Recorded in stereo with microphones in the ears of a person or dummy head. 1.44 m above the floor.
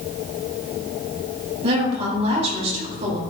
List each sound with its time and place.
1.6 s a woman speaking: 40° right (ahead or behind), 3.5 m